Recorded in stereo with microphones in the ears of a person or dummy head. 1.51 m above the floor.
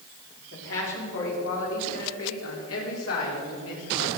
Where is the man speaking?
70° left (ahead or behind), 4.5 m; by 4.1 s 85° left, 6 m.